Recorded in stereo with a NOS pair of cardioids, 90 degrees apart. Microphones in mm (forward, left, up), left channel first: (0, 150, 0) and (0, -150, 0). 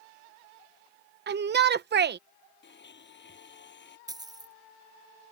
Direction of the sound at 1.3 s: 35° right.